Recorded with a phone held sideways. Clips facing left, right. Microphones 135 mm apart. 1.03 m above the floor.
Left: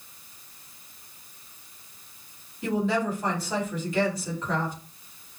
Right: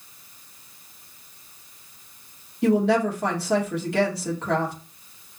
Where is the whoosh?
I don't hear a whoosh.